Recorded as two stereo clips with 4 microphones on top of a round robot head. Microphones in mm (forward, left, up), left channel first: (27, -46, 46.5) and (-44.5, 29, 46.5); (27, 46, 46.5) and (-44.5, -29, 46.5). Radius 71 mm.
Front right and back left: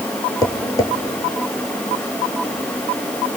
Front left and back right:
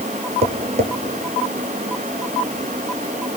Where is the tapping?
100° right, 1.6 m.